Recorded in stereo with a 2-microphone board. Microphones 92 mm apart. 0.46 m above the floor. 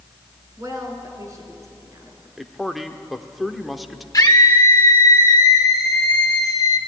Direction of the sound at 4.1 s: 40° left (ahead or behind).